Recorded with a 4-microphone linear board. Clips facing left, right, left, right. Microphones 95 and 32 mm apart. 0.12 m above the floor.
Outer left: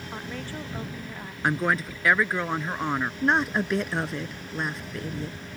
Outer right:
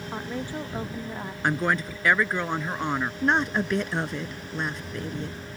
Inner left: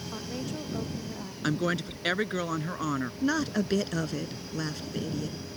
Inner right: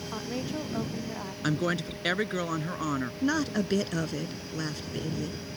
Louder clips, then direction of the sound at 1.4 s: Even, even; centre (ahead or behind).